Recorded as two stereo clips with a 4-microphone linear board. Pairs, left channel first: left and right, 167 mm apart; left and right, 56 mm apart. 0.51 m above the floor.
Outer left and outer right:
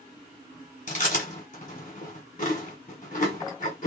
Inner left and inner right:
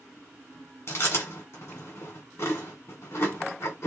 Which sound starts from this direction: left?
Chewing, at 0.9 s.